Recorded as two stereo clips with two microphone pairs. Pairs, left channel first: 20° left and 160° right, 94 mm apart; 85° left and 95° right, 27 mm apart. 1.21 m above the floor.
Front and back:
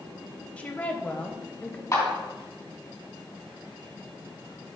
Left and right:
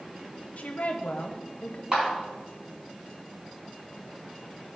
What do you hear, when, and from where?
0.6 s a woman speaking: 90° left, 0.6 m
1.9 s a clap: 35° right, 3 m